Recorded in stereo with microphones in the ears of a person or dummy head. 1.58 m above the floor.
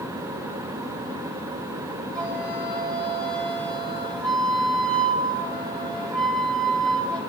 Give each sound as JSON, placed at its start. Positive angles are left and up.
{"t": 2.1, "sound": "a flute", "side_deg": 5, "distance_m": 9.5}